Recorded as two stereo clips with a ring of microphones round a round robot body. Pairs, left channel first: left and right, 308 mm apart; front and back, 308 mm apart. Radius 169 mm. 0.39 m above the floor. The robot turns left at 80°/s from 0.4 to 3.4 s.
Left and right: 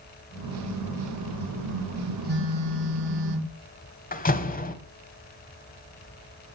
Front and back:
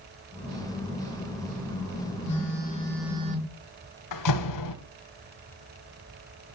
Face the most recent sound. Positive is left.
turn(degrees=25)